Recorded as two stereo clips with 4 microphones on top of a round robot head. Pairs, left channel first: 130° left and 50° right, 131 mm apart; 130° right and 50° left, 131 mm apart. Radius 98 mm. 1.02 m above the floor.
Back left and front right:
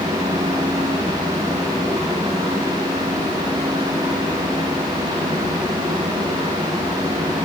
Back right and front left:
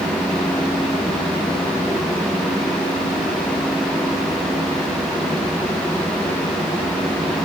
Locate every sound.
Only background noise.